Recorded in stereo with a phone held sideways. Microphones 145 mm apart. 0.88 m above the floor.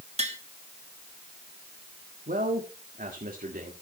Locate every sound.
0.2 s tapping: 45° right (ahead or behind), 1.4 m
2.3 s a man speaking: 65° right (ahead or behind), 1.7 m